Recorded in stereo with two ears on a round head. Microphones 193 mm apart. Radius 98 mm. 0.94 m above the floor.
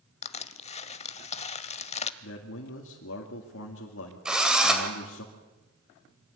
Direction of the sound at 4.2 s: 5° right (ahead or behind).